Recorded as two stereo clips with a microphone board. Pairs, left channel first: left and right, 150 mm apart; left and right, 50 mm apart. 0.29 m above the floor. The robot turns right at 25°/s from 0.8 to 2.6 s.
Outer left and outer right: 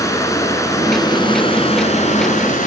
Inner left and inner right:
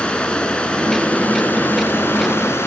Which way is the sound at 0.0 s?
20° left.